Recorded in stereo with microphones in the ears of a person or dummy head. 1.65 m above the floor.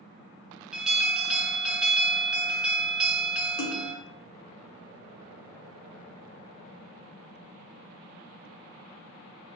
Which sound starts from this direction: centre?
An alarm, at 0.7 s.